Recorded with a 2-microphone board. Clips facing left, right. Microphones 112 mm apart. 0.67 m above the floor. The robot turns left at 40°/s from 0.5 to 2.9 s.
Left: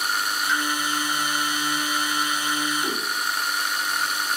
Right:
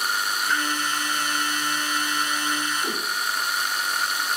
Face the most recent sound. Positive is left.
turn(degrees=10)  # may be behind; listen again after turning